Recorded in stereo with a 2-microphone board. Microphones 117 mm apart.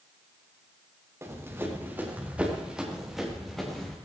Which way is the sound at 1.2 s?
25° right (ahead or behind).